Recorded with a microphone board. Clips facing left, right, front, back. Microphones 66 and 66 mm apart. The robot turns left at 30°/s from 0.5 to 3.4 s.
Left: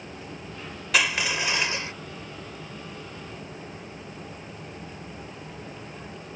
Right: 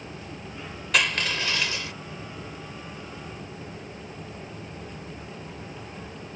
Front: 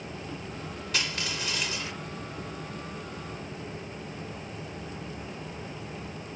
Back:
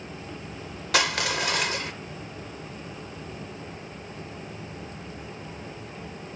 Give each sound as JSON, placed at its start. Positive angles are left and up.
{"t": 0.9, "sound": "crushing", "azimuth_deg": 175}